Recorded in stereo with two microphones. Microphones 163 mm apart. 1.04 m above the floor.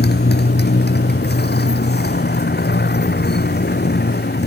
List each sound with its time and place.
0.0 s a motorcycle: 90° left; by 4.5 s 85° left